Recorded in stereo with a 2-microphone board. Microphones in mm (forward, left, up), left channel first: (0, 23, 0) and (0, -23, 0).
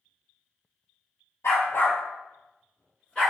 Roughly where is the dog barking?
Left.